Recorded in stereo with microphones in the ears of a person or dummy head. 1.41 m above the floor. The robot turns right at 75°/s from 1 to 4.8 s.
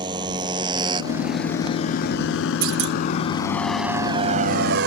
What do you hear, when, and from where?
0.0 s a motorcycle: 25° right (ahead or behind); by 4.9 s 60° right (ahead or behind)
2.6 s a clunk: 55° right (ahead or behind); by 3.0 s 60° right (ahead or behind)